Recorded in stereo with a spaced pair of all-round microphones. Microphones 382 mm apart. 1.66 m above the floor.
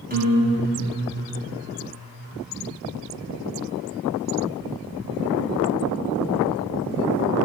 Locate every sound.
0.1 s a guitar: 25° right (ahead or behind), 2 m